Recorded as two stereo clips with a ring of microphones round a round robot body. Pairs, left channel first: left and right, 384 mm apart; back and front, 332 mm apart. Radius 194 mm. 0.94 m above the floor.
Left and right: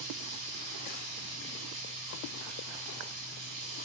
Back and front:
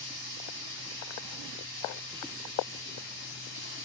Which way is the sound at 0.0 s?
75° right.